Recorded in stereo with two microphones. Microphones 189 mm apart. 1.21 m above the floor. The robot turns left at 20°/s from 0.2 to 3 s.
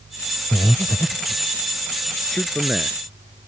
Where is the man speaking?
5° left (ahead or behind); by 3.0 s 10° right (ahead or behind).